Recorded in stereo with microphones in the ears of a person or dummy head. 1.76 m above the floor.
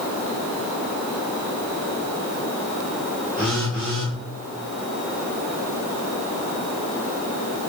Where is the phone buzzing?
5° left (ahead or behind), 1.9 m.